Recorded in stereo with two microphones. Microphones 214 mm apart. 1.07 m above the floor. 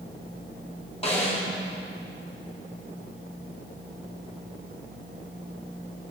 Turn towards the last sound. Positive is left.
turn(degrees=30)  # may be behind; listen again after turning